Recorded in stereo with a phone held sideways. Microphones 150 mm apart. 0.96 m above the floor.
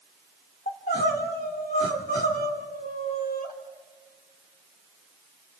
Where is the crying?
80° left, 2.5 m.